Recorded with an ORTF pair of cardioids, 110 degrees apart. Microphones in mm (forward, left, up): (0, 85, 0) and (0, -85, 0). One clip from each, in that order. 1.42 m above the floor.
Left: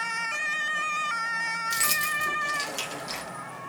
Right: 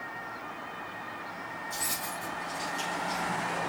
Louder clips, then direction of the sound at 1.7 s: Left 8 dB; 65° left.